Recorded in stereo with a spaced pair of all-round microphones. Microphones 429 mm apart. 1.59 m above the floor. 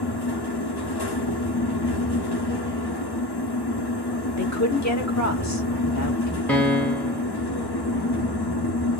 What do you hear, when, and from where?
0.0 s a fan: 60° left (ahead or behind), 0.9 m
4.4 s a woman speaking: 40° left (ahead or behind), 1.2 m
6.5 s a piano: 5° left (ahead or behind), 0.6 m